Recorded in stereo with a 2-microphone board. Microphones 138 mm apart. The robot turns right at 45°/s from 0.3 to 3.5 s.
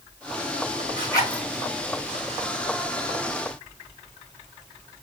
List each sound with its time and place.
1.0 s a zipper: 30° left (ahead or behind), 3 m; by 1.4 s 10° left (ahead or behind), 3 m